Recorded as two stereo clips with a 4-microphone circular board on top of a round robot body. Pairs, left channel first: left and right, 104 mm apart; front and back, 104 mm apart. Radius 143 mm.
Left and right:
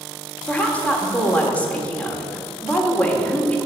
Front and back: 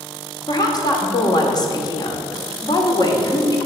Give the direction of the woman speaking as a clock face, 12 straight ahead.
11 o'clock.